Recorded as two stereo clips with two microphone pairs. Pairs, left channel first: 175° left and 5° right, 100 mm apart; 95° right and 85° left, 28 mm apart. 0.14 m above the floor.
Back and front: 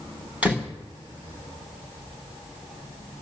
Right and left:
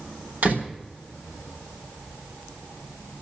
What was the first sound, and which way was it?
A door slam, 70° left.